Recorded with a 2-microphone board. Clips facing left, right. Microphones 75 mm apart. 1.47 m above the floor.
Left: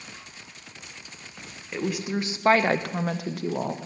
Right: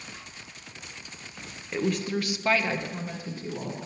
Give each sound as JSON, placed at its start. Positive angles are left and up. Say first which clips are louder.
{"t": 1.7, "sound": "a woman speaking", "louder": "right 1 dB", "side_deg": 0, "distance_m": 0.9}